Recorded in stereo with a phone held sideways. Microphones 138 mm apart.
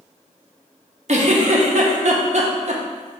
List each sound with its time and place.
1.1 s a giggle: 55° right (ahead or behind), 0.7 m